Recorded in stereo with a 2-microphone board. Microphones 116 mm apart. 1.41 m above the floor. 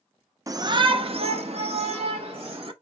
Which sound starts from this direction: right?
A shout, at 0.5 s.